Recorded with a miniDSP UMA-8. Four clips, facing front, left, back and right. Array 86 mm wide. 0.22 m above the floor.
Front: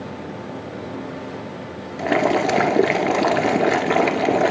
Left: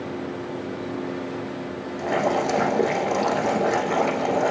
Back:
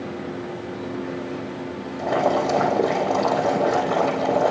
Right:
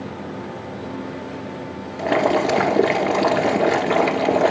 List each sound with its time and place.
2.0 s boiling: 25° right, 1.2 m